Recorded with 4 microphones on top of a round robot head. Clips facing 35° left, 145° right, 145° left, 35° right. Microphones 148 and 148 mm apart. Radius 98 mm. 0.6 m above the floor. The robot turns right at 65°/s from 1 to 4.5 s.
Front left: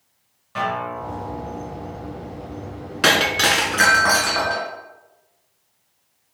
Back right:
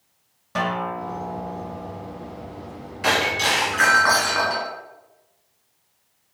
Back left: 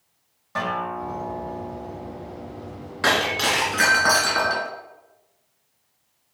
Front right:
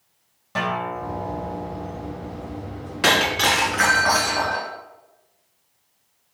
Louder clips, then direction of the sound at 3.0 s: Front left 3 dB, front right 2 dB; 35° left.